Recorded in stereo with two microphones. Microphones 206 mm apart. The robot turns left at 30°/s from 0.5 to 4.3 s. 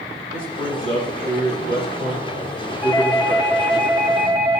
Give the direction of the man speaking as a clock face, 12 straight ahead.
3 o'clock.